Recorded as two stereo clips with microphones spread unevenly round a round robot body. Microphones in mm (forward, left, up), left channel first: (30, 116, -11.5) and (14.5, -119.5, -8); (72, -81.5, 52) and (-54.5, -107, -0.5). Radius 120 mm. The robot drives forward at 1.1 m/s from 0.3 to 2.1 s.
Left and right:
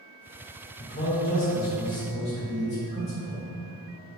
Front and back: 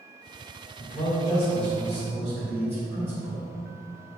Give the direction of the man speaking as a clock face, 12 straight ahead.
10 o'clock.